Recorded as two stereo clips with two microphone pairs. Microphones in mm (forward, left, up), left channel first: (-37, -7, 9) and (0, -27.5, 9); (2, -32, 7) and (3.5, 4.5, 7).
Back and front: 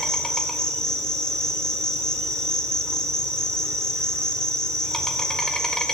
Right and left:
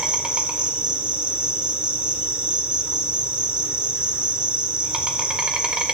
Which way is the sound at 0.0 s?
95° left.